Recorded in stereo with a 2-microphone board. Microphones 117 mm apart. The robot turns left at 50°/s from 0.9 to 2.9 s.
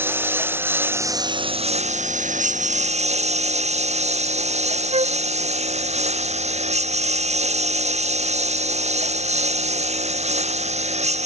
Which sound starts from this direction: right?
A flute, at 4.9 s.